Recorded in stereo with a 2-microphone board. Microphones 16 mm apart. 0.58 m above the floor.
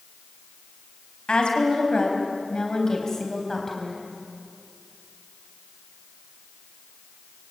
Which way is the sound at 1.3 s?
65° left (ahead or behind).